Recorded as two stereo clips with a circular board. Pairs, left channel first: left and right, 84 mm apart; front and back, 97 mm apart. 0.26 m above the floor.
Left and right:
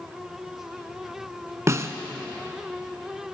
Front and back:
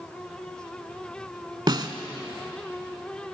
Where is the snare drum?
140° right, 0.8 m.